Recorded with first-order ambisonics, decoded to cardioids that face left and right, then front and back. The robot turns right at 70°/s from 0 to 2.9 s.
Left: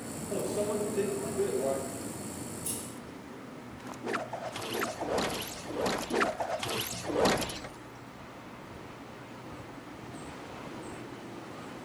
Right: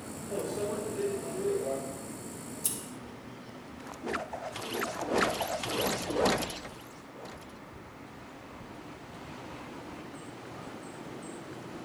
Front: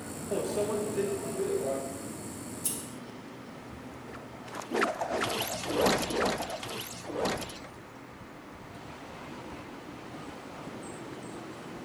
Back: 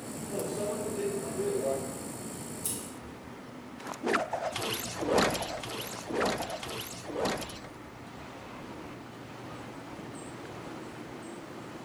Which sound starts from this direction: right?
Scissors, at 2.6 s.